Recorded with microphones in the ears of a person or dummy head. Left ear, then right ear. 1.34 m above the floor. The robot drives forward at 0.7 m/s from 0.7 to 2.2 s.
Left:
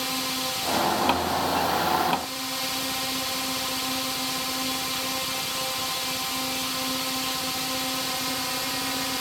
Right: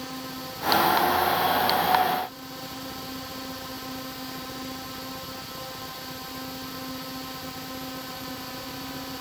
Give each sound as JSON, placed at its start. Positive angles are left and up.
{"t": 0.0, "sound": "a drone", "side_deg": 60}